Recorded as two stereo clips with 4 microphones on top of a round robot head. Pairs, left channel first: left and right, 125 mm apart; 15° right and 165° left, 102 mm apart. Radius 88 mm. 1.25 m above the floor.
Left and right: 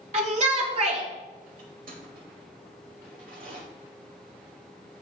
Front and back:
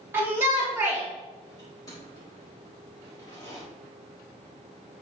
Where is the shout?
120° right, 3.5 m.